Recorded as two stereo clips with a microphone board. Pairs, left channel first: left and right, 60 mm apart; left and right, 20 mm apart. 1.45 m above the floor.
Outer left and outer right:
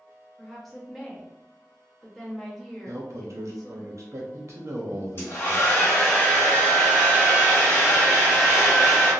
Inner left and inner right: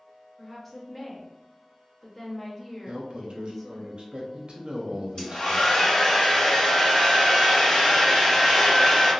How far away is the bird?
I don't hear a bird.